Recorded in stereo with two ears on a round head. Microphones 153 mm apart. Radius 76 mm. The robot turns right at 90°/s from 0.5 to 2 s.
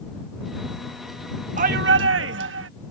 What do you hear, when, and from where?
1.6 s a shout: 135° right; by 2.7 s 95° right